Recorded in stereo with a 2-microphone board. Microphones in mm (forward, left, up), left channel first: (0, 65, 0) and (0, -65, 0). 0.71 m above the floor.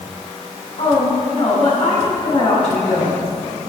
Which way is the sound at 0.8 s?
75° left (ahead or behind).